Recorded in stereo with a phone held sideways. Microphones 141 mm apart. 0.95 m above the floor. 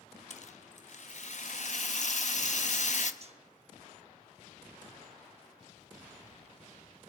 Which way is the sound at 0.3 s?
60° left (ahead or behind).